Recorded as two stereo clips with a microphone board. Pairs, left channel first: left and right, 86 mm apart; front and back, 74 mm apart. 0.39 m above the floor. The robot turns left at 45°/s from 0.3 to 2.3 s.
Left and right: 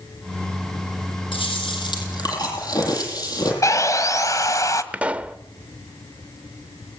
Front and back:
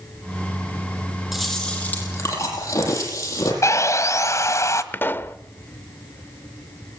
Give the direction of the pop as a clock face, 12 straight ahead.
1 o'clock.